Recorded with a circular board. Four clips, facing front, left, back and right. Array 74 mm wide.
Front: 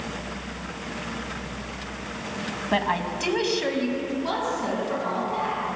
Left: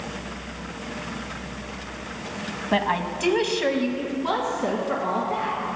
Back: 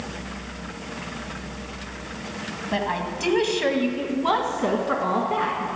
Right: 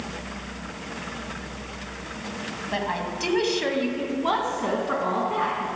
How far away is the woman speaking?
About 1.3 m.